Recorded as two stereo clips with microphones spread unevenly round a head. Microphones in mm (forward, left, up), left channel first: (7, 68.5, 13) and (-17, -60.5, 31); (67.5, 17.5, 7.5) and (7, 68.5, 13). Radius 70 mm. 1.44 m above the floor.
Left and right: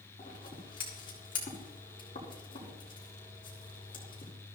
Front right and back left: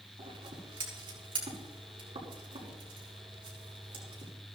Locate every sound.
0.2 s scissors: 135° left, 6.5 m